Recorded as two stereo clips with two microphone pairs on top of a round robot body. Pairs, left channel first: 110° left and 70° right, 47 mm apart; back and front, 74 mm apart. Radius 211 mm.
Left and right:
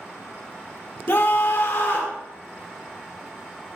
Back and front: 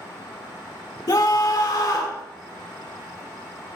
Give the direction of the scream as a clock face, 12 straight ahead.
7 o'clock.